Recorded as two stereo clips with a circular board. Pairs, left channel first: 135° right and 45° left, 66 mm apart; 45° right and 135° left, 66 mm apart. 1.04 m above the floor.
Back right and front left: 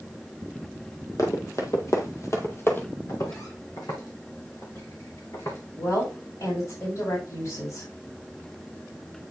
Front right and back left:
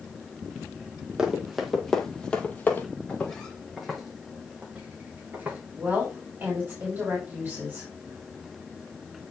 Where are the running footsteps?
150° right, 1.8 m; by 2.9 s 90° right, 1.5 m.